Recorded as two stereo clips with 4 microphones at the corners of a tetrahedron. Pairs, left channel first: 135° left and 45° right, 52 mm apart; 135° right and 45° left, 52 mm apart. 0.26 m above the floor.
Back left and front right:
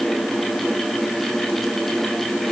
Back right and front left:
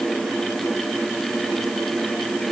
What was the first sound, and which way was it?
Only background noise.